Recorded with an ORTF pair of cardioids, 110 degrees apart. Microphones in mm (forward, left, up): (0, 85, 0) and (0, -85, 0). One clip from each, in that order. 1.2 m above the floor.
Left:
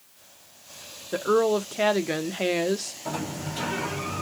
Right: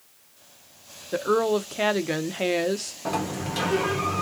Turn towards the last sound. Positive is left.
turn(degrees=-65)